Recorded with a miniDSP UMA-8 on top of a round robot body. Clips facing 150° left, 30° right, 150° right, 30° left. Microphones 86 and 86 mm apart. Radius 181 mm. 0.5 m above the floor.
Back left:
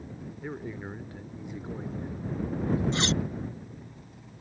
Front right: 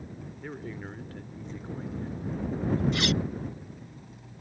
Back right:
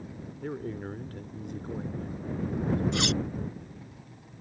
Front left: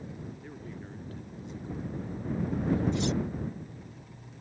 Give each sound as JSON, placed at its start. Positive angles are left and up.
{"t": 0.4, "sound": "a man speaking", "azimuth_deg": -135}
{"t": 2.9, "sound": "cutlery clinking", "azimuth_deg": -150}